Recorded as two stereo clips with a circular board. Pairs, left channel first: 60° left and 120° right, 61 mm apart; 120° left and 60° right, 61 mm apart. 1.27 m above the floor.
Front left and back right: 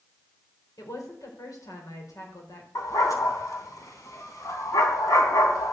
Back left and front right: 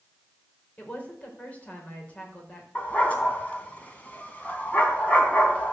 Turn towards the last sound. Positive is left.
turn(degrees=55)